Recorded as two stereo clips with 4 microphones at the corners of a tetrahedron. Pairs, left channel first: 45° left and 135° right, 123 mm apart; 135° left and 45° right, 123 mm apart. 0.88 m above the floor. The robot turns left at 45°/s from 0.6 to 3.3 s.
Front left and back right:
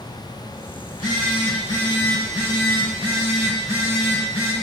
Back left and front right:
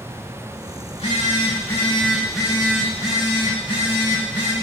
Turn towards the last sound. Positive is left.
turn(degrees=0)